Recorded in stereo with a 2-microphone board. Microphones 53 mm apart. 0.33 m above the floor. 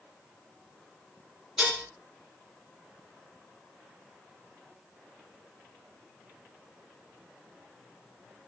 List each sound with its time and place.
1.6 s dishes clattering: 15° right (ahead or behind), 2.5 m